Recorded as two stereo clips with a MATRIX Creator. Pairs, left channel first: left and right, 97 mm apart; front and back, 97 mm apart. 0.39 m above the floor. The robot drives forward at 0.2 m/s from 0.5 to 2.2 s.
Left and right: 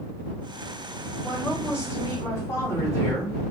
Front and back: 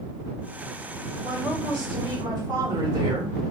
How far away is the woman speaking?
About 1.5 m.